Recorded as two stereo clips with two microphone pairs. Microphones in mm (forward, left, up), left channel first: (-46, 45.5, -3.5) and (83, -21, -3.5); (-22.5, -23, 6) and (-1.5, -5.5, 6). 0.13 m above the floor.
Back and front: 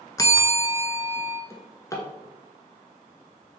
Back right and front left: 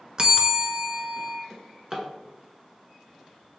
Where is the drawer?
95° left, 1.0 m.